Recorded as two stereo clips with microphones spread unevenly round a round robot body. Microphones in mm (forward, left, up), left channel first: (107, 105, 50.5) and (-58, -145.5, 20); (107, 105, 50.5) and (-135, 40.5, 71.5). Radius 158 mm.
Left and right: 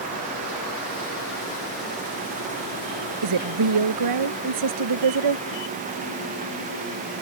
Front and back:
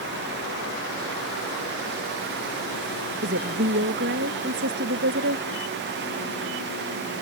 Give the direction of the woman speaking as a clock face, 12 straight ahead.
4 o'clock.